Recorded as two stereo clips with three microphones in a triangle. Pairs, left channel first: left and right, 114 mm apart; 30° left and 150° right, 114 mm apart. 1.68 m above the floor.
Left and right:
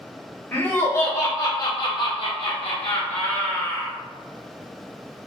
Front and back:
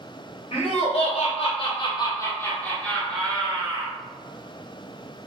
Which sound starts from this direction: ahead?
Laughter, at 0.5 s.